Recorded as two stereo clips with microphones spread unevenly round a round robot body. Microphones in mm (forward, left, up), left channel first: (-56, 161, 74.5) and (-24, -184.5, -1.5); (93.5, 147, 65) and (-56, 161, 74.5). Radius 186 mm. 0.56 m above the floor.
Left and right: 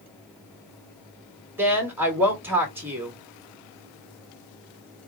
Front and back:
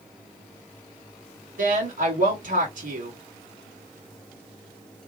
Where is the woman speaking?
160° right, 2.5 m.